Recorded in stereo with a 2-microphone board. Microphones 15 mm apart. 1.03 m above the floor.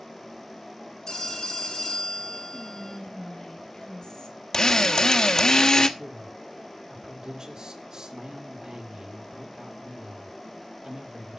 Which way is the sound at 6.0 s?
50° right (ahead or behind).